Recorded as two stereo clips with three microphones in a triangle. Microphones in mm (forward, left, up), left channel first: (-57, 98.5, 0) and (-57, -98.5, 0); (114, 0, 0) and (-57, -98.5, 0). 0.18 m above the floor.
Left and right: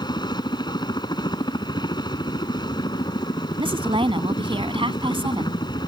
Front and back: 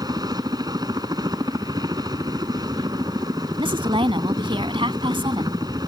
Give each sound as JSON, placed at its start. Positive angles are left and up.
{"t": 0.0, "sound": "a helicopter", "azimuth_deg": 150}
{"t": 3.6, "sound": "a woman speaking", "azimuth_deg": -120}